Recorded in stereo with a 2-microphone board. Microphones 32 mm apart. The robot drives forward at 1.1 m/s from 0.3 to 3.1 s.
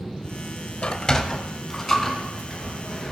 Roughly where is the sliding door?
Left.